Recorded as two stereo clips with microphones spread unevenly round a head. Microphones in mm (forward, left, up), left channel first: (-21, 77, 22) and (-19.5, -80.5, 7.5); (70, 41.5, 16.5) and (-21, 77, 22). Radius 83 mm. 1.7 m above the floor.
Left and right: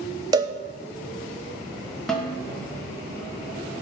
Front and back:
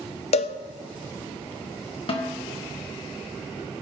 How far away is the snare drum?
About 2 m.